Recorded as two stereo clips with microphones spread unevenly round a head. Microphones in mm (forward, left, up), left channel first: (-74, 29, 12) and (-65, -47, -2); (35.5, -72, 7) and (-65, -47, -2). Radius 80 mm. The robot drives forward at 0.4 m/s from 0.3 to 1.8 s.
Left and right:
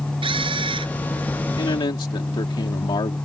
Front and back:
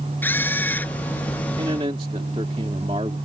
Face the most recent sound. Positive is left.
turn(degrees=105)